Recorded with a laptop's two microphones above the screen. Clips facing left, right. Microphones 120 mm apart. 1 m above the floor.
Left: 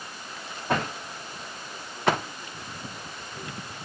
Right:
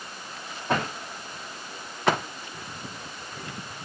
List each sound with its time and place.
Only background noise.